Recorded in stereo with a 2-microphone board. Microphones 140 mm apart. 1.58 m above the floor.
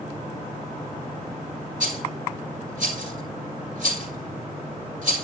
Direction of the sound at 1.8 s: 70° right (ahead or behind).